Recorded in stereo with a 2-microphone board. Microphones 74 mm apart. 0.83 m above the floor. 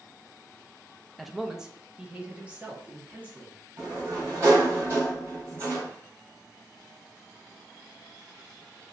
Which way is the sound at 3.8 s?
40° right (ahead or behind).